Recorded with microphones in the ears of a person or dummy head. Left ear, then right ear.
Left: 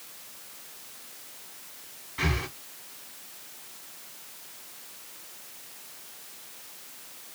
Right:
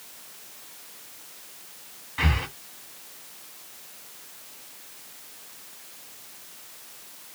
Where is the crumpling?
No crumpling in this recording.